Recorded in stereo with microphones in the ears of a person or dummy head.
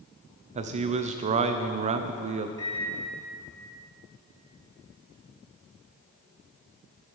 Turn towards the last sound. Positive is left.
turn(degrees=25)  # may be behind; listen again after turning